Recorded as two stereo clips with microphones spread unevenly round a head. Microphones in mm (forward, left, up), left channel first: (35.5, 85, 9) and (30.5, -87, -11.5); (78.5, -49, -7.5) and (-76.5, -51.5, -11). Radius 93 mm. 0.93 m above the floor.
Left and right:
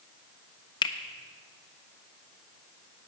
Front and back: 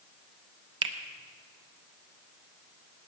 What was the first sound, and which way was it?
A finger snap, 150° left.